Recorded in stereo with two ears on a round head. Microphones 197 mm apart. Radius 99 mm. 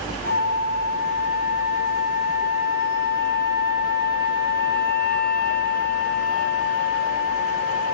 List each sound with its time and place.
0.2 s a flute: 10° right (ahead or behind), 3 m